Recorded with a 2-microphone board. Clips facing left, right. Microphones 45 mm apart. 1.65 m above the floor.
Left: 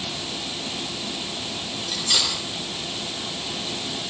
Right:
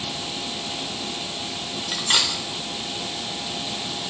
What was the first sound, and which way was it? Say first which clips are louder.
Cutlery clinking: right 2 dB; 35° right (ahead or behind).